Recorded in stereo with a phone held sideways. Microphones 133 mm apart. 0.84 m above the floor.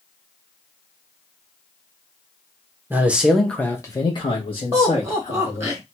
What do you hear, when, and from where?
2.9 s a man speaking: 15° right (ahead or behind), 0.7 m; by 5.7 s 50° left (ahead or behind), 1.3 m
4.7 s laughter: 20° right (ahead or behind), 0.9 m